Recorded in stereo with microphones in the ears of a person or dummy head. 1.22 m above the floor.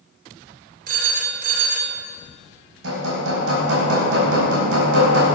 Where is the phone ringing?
55° right (ahead or behind), 2.0 m.